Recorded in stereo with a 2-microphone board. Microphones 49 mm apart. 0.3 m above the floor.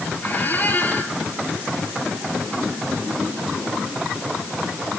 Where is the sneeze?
No sneeze in this recording.